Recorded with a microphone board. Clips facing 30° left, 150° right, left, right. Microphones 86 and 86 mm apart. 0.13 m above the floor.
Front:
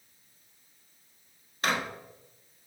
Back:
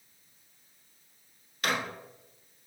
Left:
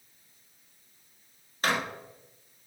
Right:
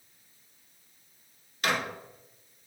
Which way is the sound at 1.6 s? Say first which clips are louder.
Front 2 dB, left 1 dB; 65° left.